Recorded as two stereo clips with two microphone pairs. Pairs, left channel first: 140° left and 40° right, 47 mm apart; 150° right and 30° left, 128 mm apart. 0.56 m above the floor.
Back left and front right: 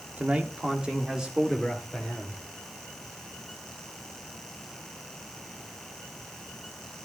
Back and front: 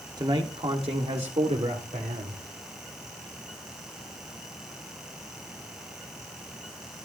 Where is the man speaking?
5° right, 1.3 m; by 2.4 s 50° left, 2 m.